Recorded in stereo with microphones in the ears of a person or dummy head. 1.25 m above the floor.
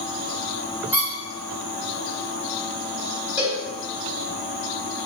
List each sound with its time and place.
0.9 s a squeak: 10° right (ahead or behind), 1.6 m
3.4 s a cowbell: 15° right (ahead or behind), 1.8 m